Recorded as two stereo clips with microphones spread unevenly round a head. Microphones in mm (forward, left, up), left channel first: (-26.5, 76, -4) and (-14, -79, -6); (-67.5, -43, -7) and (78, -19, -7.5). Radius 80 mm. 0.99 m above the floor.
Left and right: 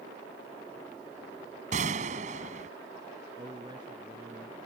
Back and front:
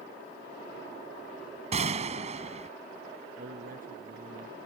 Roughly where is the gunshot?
Ahead right.